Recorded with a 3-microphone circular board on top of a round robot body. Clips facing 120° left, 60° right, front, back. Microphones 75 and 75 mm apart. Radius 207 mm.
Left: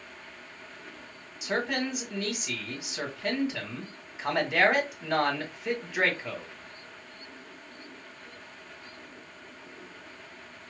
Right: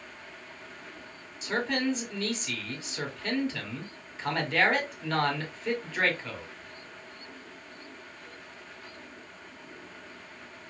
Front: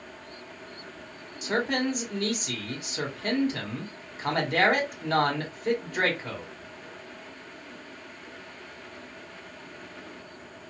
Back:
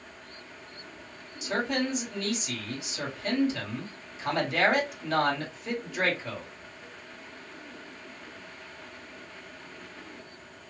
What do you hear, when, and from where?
1.4 s a man speaking: 40° left, 1.4 m